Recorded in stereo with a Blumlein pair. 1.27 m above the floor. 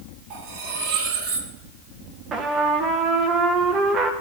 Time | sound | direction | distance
0.3 | cutlery clinking | 45° right | 1.9 m
2.3 | a trumpet | 25° right | 1.2 m